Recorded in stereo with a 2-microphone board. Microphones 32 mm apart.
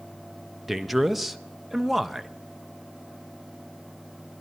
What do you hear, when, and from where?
0.7 s a man speaking: 5° right (ahead or behind), 0.6 m